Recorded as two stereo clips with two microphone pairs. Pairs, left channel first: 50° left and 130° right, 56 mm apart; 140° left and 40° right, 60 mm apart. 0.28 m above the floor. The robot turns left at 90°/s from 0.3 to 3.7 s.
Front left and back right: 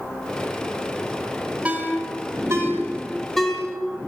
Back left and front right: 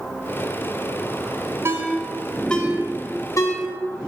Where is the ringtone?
70° right, 1.3 m; by 3.6 s 115° left, 1.3 m.